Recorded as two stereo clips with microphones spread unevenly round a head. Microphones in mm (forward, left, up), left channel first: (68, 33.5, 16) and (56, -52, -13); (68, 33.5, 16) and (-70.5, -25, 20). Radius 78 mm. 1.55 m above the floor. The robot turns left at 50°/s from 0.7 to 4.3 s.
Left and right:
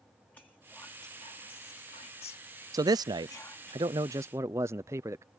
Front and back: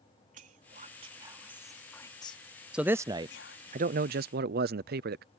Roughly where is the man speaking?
Right.